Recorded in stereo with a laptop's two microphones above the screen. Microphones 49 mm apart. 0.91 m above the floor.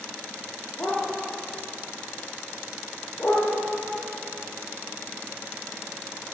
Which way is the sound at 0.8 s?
45° left (ahead or behind).